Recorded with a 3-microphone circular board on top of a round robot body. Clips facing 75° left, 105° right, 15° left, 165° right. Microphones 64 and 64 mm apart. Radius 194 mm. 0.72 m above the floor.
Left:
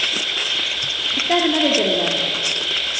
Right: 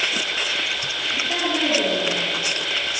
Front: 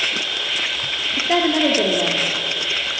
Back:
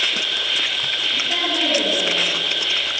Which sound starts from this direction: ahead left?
A woman speaking, at 1.2 s.